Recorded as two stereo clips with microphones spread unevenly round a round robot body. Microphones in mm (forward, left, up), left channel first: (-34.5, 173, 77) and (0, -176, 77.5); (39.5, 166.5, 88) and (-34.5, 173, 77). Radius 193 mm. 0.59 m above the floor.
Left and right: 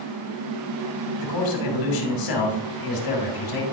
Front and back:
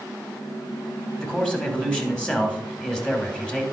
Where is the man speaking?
75° left, 2.5 m.